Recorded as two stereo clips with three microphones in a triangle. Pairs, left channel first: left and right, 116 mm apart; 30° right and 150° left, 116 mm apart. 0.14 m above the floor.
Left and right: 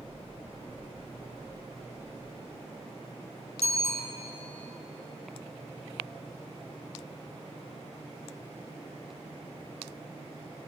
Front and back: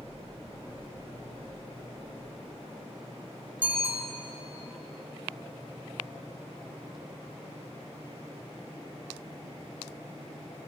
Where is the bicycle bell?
75° left, 5 m.